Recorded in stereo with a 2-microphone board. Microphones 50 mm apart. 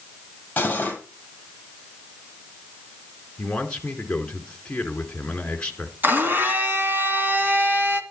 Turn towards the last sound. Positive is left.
turn(degrees=-40)  # may be behind; listen again after turning